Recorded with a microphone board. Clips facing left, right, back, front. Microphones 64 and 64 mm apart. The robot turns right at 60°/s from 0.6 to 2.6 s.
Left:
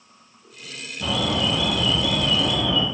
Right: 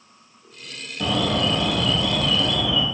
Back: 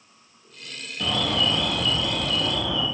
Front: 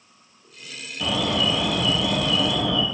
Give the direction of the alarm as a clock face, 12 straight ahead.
3 o'clock.